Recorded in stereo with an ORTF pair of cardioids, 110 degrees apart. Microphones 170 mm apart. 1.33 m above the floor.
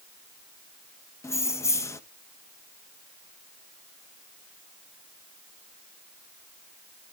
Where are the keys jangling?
15° left, 0.9 m.